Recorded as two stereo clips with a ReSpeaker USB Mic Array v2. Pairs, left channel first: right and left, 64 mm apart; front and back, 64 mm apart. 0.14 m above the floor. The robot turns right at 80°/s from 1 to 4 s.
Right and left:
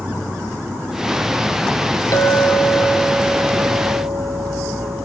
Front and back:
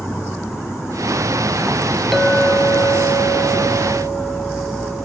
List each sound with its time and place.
0.0 s an insect: 35° left, 4.5 m; by 5.1 s 85° right, 4.5 m
2.1 s a clink: 95° right, 1.6 m; by 5.1 s 55° left, 1.6 m